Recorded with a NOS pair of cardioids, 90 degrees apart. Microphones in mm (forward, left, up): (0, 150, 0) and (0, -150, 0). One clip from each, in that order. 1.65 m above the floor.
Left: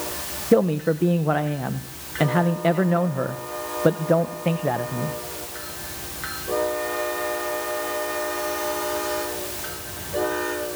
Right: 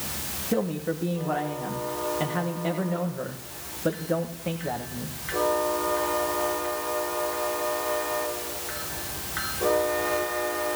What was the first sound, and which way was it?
A man speaking, 45° left.